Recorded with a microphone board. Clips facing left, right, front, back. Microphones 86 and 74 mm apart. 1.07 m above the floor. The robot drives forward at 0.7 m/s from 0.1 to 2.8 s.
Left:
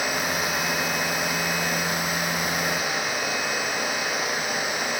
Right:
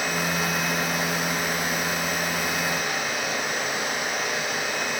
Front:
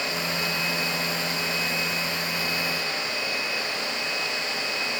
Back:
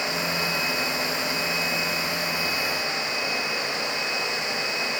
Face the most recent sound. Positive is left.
No sound to turn to.